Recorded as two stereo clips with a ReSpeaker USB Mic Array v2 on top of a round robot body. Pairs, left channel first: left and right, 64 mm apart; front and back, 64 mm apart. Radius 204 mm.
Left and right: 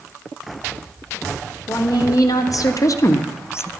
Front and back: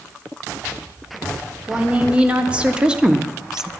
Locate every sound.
1.7 s a woman speaking: 110° left, 1.8 m; by 3.7 s 100° left, 0.7 m